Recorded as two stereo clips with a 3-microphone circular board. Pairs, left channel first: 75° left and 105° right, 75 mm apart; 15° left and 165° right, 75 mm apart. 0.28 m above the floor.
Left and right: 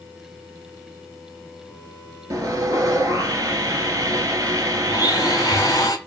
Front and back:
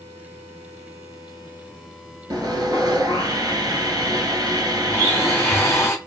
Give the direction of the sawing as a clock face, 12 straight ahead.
5 o'clock.